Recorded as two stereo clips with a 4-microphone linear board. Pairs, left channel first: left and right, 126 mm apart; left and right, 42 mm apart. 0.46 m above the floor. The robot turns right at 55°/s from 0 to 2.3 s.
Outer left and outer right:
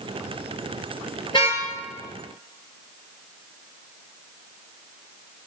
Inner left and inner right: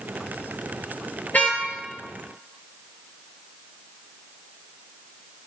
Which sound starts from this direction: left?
A car horn, at 1.3 s.